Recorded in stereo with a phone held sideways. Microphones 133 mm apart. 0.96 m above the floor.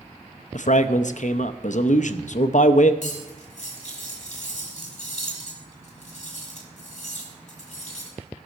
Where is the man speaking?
65° left (ahead or behind), 0.7 m.